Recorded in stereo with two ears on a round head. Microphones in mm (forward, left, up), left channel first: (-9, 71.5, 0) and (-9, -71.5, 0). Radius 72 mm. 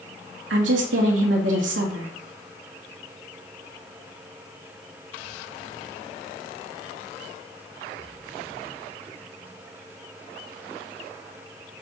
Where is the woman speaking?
85° right, 1.4 m.